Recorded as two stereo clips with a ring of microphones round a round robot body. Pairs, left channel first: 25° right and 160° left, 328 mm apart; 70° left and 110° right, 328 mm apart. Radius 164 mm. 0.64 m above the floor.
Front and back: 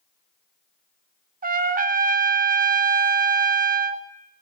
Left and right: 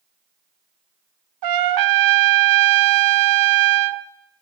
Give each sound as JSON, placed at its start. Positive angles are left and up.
{"t": 1.4, "sound": "a trumpet", "azimuth_deg": -140, "distance_m": 1.3}